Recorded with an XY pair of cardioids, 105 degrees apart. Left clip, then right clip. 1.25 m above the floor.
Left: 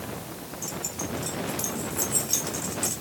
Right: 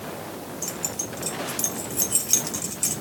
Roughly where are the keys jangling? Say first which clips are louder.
Right 2 dB; ahead right.